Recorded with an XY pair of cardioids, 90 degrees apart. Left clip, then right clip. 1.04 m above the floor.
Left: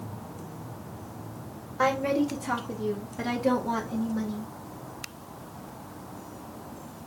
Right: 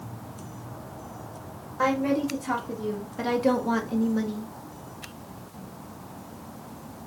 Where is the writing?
No writing in this recording.